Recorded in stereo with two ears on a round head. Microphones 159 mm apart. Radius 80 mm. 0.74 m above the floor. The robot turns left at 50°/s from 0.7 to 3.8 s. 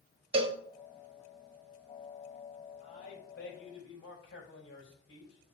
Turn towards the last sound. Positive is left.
turn(degrees=90)